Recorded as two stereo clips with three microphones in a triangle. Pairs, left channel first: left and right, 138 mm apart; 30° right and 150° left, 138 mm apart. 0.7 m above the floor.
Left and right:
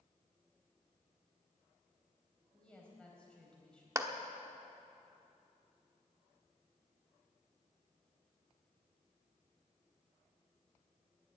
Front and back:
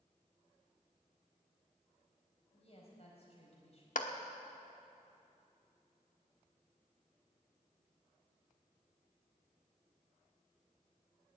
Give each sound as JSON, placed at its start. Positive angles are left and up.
{"t": 2.5, "sound": "a woman speaking", "azimuth_deg": 10, "distance_m": 4.0}
{"t": 4.0, "sound": "a clap", "azimuth_deg": -20, "distance_m": 1.1}